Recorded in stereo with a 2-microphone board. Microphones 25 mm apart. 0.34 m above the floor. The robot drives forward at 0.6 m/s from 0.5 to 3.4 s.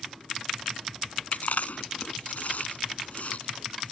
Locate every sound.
1.3 s chewing: 70° left (ahead or behind); by 3.9 s 60° left (ahead or behind)